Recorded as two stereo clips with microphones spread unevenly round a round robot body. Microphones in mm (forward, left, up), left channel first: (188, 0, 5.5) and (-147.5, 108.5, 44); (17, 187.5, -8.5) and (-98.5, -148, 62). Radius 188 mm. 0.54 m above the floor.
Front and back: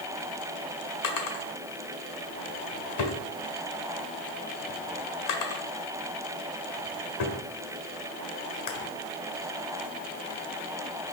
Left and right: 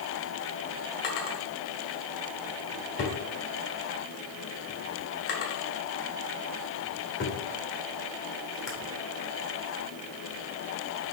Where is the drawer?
15° left, 1.5 m.